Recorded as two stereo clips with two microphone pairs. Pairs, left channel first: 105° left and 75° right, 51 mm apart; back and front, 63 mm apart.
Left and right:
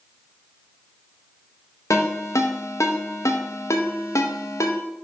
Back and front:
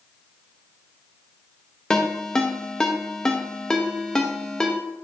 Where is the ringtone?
95° left, 0.8 m.